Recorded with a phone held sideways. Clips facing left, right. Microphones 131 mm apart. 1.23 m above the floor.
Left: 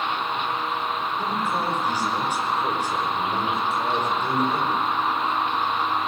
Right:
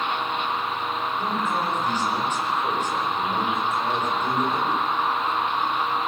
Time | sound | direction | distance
1.2 | a man speaking | 10° left (ahead or behind) | 5 m